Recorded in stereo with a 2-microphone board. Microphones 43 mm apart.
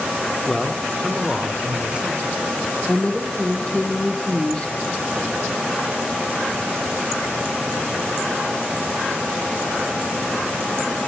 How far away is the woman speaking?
About 1.1 m.